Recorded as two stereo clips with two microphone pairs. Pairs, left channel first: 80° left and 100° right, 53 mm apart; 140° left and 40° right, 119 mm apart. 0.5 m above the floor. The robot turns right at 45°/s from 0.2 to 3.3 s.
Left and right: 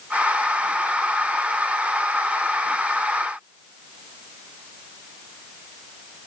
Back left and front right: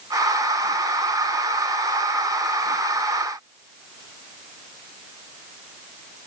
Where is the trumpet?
No trumpet in this recording.